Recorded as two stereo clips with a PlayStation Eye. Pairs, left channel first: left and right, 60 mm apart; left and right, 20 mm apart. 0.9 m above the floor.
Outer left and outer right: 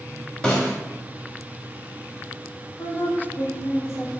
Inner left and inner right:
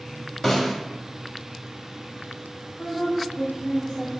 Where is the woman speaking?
50° left (ahead or behind), 1.2 m.